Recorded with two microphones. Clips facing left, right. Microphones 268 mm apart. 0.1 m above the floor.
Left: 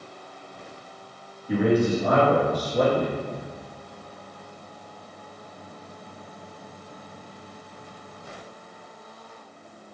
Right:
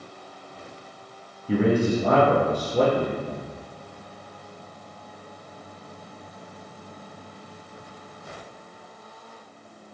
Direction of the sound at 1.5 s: 30° right (ahead or behind).